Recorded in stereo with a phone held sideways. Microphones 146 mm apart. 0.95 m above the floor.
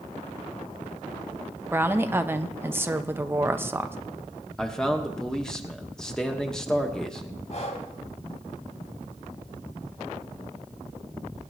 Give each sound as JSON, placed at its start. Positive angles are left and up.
{"t": 1.7, "sound": "a woman speaking", "side_deg": -15, "distance_m": 0.7}
{"t": 4.6, "sound": "a man speaking", "side_deg": 5, "distance_m": 1.2}
{"t": 7.5, "sound": "breathing", "side_deg": 50, "distance_m": 2.0}